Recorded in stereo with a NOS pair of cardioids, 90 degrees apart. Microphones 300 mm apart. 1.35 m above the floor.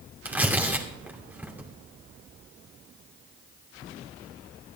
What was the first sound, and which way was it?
Tearing paper, 5° right.